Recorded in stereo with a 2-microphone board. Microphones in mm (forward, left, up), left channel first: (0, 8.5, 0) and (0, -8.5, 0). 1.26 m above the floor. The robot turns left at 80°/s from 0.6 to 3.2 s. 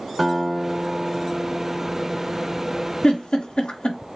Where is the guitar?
10° right, 1.6 m; by 3.3 s 140° left, 1.6 m.